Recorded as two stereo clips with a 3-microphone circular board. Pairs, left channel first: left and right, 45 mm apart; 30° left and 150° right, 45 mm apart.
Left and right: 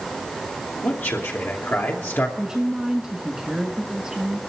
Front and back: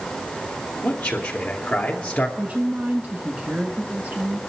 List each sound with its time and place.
0.8 s a man speaking: 95° left, 2.5 m
2.4 s a woman speaking: 155° right, 1.4 m